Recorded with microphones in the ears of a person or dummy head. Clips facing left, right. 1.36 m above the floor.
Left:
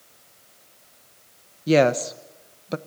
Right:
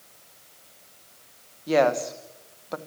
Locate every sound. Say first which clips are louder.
1.7 s a woman speaking: left 3 dB; 35° left (ahead or behind), 1.1 m